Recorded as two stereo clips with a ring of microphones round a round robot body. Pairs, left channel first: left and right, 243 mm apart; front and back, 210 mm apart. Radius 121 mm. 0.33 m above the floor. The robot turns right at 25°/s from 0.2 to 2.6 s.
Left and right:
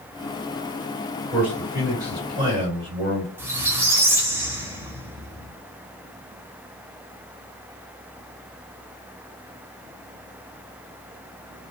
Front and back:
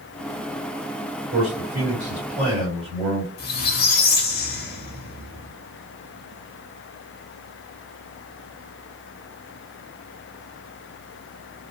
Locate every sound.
1.3 s a man speaking: 170° right, 1.8 m; by 3.3 s 135° right, 1.8 m
3.4 s a squeak: 15° right, 0.6 m